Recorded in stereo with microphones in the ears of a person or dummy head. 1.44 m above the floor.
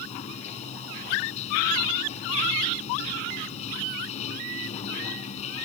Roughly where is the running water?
Left.